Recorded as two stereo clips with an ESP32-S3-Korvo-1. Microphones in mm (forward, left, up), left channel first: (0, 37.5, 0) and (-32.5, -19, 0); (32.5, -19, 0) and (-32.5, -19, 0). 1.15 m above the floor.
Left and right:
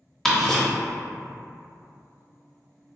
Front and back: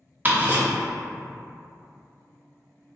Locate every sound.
0.2 s ticking: 145° left, 0.7 m